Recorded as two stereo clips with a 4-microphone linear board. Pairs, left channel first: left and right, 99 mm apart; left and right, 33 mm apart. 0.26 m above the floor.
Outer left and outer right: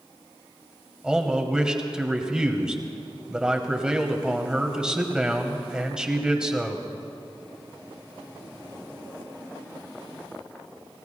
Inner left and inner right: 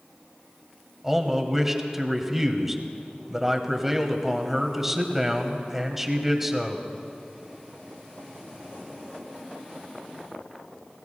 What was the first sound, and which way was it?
A man speaking, 10° right (ahead or behind).